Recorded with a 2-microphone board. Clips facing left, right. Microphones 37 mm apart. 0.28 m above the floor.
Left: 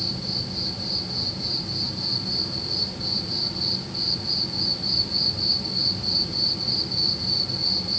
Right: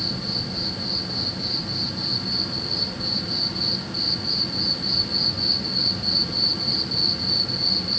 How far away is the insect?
About 2.5 m.